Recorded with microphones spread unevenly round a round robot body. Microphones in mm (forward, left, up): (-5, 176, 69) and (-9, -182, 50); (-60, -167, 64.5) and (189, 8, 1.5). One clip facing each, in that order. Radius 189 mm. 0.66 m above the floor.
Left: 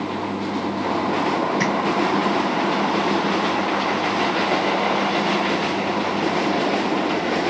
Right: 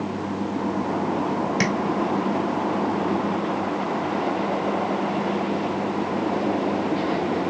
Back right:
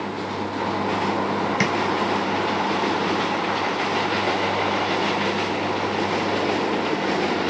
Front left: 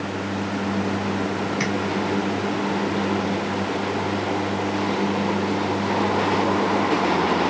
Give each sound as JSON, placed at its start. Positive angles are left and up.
{"t": 1.6, "sound": "tapping", "azimuth_deg": -140, "distance_m": 1.6}